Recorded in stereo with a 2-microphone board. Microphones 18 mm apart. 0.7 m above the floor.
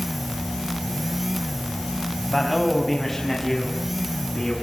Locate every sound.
2.2 s a man speaking: centre (ahead or behind), 4.5 m; by 4.5 s 15° left (ahead or behind), 7 m